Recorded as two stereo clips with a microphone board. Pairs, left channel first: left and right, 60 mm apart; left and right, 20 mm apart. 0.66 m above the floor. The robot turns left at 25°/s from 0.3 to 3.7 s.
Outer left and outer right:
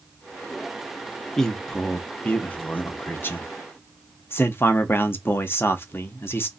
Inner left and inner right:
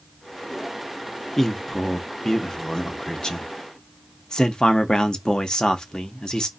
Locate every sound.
1.4 s a man speaking: 170° left, 0.6 m; by 6.5 s 110° left, 0.6 m